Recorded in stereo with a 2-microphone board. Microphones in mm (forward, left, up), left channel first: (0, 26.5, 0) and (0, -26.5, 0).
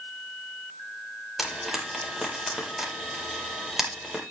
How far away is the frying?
About 8 m.